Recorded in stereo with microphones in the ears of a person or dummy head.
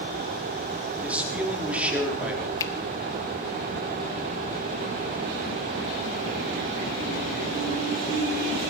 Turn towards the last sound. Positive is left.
turn(degrees=15)  # may be behind; listen again after turning